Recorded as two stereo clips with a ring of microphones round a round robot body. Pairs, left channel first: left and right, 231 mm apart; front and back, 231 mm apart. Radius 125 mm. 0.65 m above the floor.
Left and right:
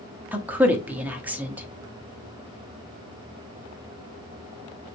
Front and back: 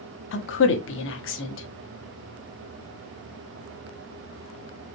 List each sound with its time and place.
0.3 s a woman speaking: 10° right, 0.9 m